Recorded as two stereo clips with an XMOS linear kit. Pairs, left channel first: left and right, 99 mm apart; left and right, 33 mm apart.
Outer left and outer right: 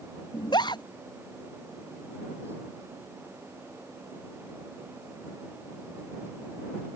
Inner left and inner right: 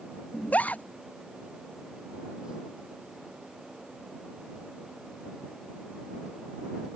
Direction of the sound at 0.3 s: 50° left (ahead or behind).